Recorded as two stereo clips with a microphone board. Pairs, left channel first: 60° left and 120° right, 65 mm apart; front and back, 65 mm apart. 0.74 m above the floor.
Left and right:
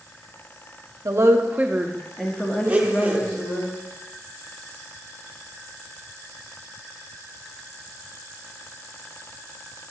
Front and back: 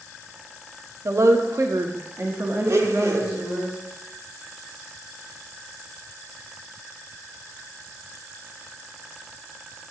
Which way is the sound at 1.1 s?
145° right.